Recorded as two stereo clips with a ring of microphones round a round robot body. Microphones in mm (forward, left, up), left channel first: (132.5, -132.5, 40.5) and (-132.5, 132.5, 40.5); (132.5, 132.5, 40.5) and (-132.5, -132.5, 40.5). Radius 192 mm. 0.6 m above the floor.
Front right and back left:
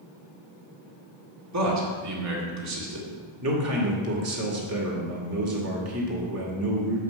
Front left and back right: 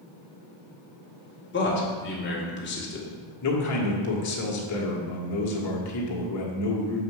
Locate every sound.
1.5 s a man speaking: 100° left, 2.0 m
3.4 s a man speaking: 85° left, 1.9 m